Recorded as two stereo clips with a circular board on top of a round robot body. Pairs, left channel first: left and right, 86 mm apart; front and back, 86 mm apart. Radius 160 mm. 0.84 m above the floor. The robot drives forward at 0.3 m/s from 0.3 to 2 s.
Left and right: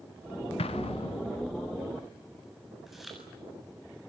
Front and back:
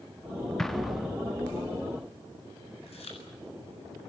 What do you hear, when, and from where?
0.6 s an explosion: 85° left, 0.8 m; by 1.3 s 100° left, 0.8 m
2.9 s chewing: 5° right, 8.5 m